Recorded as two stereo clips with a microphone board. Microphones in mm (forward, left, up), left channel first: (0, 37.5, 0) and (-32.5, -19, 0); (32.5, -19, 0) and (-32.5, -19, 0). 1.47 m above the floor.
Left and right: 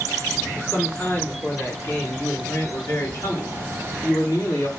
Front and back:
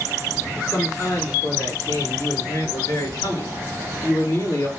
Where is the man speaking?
5° left, 4.5 m; by 4.7 s 25° left, 2.5 m.